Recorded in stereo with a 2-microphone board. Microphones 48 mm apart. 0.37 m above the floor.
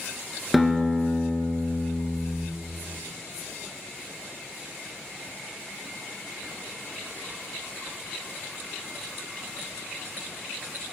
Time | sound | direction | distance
0.5 | a guitar | 5° left (ahead or behind) | 0.9 m